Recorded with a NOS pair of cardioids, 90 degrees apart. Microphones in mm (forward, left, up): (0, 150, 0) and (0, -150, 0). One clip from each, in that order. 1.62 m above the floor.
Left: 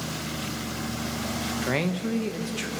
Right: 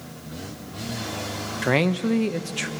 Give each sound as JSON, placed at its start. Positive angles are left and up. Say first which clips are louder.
{"t": 1.6, "sound": "a man speaking", "louder": "right 8 dB", "azimuth_deg": -30, "distance_m": 1.4}